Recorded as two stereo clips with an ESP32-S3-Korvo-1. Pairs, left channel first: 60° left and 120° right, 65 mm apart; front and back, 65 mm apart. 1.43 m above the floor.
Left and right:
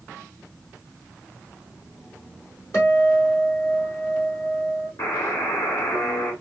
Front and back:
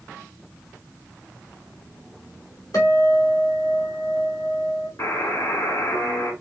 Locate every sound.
2.7 s a guitar: 15° left, 2 m
5.0 s a buzzer: 35° left, 2 m